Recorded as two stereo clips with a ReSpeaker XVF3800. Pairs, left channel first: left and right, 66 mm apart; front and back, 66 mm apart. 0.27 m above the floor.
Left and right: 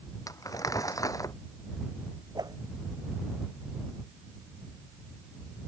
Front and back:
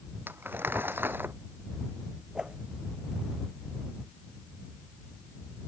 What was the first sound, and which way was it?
Crumpling, 125° left.